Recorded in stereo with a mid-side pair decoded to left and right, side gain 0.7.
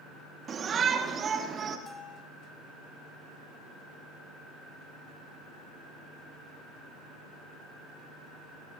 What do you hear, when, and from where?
0.5 s a shout: 35° right, 2.5 m; by 1.8 s 30° right, 3.5 m
1.9 s a bell: 15° left, 3 m